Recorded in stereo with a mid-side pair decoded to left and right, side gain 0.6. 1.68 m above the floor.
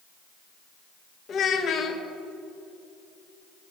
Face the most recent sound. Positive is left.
turn(degrees=45)